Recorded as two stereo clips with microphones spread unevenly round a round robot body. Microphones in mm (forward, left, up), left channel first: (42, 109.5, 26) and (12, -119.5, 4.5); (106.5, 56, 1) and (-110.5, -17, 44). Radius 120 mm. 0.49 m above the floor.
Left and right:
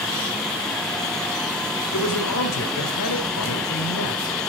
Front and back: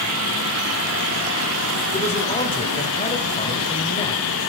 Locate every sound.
1.9 s a man speaking: 80° left, 1.8 m